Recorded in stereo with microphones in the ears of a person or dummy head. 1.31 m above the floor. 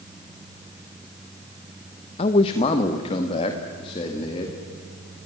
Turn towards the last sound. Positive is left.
turn(degrees=30)  # may be behind; listen again after turning